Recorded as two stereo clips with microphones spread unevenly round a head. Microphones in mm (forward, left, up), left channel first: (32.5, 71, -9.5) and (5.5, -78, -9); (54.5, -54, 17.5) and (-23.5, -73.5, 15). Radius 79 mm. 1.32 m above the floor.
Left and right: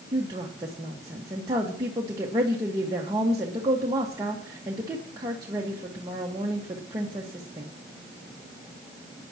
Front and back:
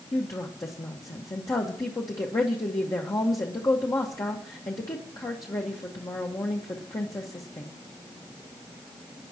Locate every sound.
0.1 s a woman speaking: 35° right, 1.6 m